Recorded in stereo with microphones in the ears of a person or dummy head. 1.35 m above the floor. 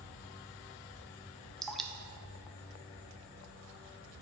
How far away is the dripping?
About 0.5 m.